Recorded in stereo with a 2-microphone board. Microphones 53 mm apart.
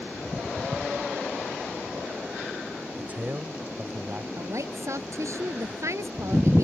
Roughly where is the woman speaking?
Right.